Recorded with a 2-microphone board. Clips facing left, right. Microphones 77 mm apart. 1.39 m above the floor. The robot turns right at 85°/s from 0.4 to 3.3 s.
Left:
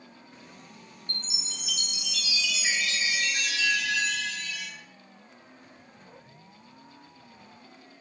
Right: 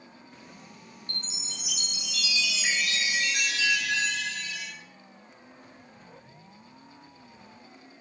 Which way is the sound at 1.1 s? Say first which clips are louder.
Left 1 dB; 145° left.